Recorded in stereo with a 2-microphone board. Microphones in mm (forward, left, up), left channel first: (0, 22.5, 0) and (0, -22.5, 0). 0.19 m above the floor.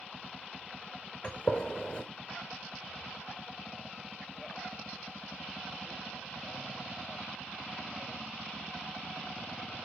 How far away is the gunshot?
About 0.7 m.